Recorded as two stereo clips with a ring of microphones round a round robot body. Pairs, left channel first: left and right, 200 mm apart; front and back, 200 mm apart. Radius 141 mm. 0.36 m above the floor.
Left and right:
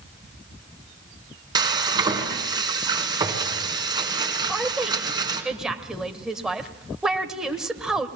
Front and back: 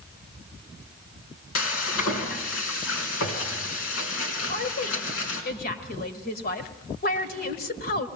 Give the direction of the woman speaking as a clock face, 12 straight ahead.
12 o'clock.